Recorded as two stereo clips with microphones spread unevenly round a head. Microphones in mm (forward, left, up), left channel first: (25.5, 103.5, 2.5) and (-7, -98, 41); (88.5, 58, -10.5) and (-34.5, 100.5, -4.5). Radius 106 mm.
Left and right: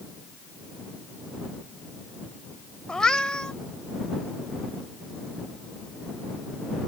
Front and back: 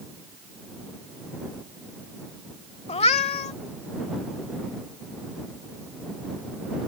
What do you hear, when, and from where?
2.9 s a cat meowing: 15° right